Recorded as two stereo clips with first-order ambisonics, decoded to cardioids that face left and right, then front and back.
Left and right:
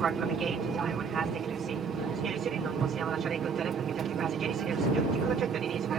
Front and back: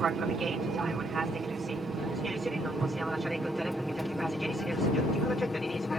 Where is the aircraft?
135° right; by 6.0 s 70° right.